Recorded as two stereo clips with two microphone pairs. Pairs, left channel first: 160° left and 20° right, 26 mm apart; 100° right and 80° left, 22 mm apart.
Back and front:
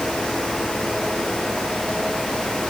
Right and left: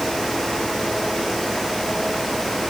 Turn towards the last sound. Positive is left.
No sound to turn to.